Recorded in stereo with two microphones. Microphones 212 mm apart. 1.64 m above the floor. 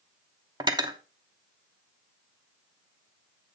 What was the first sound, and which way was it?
Cutlery clinking, 20° right (ahead or behind).